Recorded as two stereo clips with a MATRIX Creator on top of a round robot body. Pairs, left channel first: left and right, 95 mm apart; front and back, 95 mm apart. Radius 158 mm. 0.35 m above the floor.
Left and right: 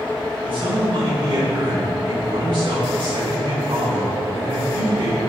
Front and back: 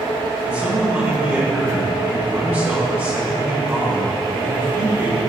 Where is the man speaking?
115° right, 3.5 m.